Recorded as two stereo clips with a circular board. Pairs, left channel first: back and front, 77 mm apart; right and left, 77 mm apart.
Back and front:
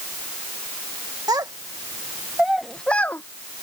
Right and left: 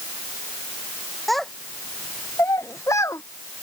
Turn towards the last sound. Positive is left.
turn(degrees=-125)